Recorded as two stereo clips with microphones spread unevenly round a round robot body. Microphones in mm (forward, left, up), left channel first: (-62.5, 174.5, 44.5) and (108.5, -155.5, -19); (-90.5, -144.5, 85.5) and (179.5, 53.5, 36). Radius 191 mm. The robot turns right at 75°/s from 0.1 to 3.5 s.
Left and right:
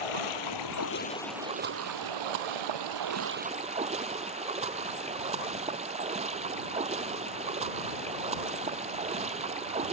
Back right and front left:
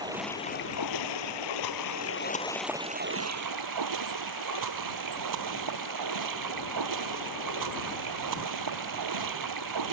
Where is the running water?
115° left; by 9.9 s 10° left.